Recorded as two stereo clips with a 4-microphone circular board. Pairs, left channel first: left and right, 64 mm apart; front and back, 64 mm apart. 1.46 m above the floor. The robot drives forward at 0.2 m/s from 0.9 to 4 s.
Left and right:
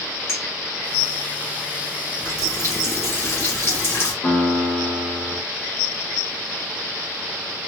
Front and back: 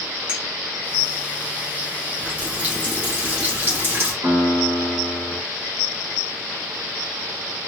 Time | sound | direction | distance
0.3 | a clink | 125° left | 1.6 m
2.2 | a running tap | 120° left | 1.1 m
4.2 | a piano | 125° left | 1.3 m